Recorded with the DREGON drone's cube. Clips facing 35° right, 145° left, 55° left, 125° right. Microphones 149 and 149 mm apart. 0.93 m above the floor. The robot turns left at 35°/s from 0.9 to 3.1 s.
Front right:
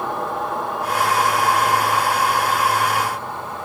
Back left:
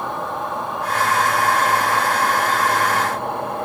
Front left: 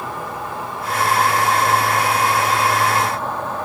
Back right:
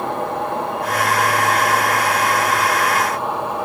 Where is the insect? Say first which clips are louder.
Front right 1 dB, back right 6 dB; 125° right, 2.5 m; by 3.6 s 160° left, 2.5 m.